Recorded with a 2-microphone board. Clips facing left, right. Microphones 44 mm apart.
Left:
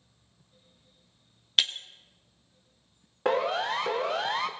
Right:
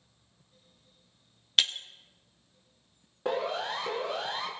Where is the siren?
85° left, 2 m; by 4.5 s 80° left, 1.4 m.